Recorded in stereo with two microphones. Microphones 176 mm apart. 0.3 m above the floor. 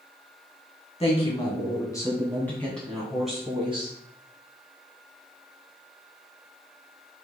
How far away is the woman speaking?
About 2.5 m.